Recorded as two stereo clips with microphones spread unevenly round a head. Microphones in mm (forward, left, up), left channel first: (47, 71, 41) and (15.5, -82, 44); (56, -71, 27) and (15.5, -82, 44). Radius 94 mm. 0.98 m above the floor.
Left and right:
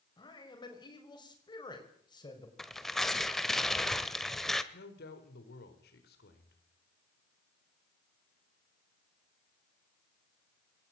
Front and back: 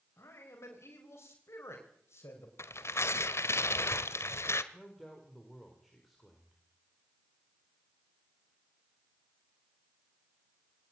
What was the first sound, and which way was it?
A man speaking, 15° left.